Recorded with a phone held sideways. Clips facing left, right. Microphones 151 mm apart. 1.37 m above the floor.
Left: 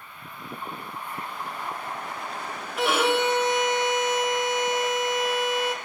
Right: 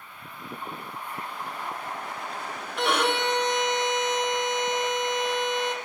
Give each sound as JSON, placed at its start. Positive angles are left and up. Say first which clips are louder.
{"t": 2.8, "sound": "a violin", "louder": "left 2 dB", "side_deg": 5, "distance_m": 0.9}